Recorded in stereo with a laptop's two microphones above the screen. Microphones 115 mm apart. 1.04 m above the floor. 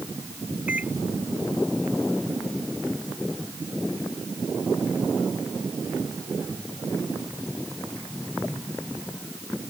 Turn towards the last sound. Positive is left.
turn(degrees=-10)  # may be behind; listen again after turning